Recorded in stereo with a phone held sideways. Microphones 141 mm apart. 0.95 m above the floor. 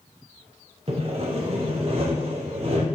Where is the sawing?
45° right (ahead or behind), 0.7 m.